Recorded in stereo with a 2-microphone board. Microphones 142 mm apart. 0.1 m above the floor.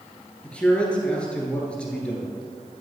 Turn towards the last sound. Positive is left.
turn(degrees=5)  # may be behind; listen again after turning